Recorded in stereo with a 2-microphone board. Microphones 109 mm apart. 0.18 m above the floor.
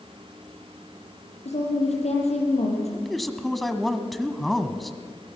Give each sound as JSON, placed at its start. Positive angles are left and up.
{"t": 1.4, "sound": "a woman speaking", "side_deg": 75, "distance_m": 6.5}
{"t": 2.9, "sound": "a man speaking", "side_deg": 0, "distance_m": 1.3}